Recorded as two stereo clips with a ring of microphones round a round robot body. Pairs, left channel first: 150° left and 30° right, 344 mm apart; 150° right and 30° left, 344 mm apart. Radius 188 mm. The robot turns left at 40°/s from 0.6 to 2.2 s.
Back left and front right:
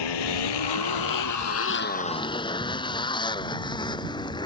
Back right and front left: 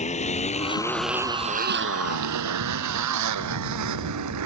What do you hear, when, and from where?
0.0 s a motorcycle: 140° left; by 4.5 s 70° left